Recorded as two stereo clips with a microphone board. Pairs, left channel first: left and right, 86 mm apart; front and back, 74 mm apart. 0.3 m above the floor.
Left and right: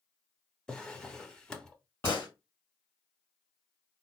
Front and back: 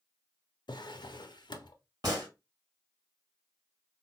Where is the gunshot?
150° left, 3 m.